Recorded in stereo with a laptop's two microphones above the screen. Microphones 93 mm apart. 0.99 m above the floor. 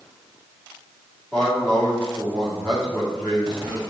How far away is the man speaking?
About 2 m.